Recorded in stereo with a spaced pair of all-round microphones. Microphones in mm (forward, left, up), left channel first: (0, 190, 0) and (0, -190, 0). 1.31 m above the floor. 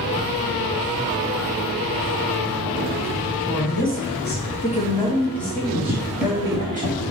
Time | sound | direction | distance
3.5 | a woman speaking | 40° left (ahead or behind) | 2 m
5.9 | running footsteps | 5° right (ahead or behind) | 1.3 m